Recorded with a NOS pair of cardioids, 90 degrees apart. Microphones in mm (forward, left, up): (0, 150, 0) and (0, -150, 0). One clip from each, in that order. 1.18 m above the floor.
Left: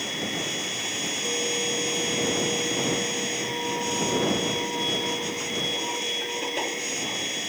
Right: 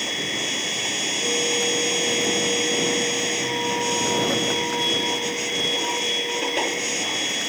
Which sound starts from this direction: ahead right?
A machine running, at 0.0 s.